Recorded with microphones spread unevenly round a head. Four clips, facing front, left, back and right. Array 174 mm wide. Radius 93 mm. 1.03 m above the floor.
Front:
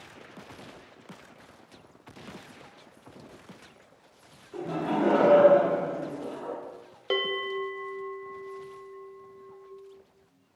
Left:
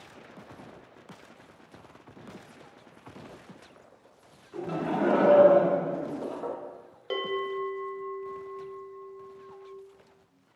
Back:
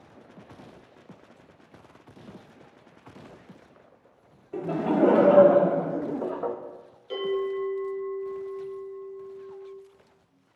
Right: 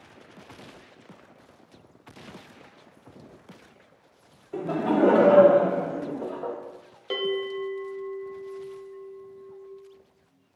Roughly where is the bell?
Ahead.